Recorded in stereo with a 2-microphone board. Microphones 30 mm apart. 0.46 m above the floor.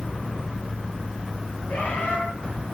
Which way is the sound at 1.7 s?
60° left (ahead or behind).